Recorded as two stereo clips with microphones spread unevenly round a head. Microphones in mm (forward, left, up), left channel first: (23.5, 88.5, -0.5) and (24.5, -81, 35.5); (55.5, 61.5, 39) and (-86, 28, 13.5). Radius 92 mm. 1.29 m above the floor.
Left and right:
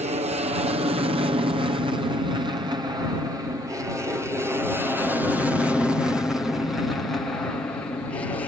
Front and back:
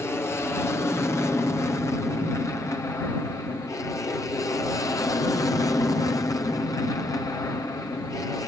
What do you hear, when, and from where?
0.0 s an aircraft: 60° right; by 8.5 s 65° left